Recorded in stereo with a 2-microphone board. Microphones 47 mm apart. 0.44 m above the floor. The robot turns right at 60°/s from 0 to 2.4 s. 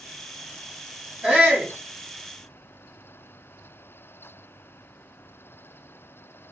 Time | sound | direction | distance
1.2 | a shout | 120° right | 1.0 m